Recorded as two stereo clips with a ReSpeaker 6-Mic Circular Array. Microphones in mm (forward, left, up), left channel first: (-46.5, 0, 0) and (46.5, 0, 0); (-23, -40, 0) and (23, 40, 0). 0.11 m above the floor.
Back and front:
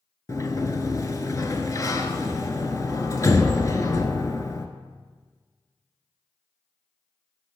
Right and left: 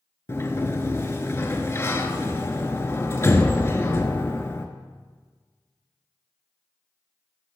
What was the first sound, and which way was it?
A sliding door, 160° right.